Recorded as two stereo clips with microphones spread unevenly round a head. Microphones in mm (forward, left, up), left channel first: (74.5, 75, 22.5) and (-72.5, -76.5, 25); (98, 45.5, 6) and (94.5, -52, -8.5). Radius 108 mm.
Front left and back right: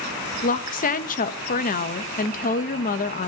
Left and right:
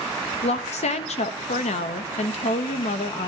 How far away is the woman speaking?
About 1.1 m.